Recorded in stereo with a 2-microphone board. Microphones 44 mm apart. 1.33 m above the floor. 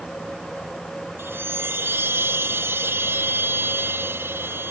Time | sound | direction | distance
1.2 | a chime | 65° right (ahead or behind) | ?